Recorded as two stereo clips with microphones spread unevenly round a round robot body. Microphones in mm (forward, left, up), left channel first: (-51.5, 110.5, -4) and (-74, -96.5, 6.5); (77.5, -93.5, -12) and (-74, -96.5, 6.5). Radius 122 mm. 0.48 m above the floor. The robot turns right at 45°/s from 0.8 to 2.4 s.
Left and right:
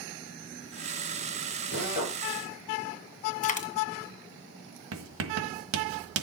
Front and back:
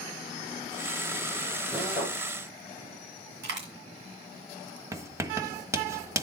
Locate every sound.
1.7 s a drill: 120° left, 7.5 m; by 2.2 s 140° left, 7.5 m
3.4 s a dropped coin: 135° left, 2.5 m
4.9 s writing: 105° right, 1.4 m